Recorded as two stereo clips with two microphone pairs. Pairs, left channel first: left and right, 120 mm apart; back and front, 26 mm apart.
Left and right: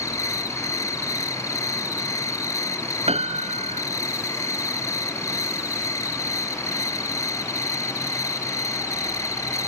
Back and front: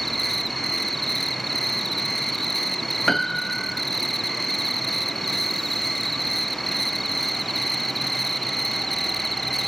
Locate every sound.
0.0 s an insect: 100° left, 1.1 m
3.1 s a piano: 100° right, 1.1 m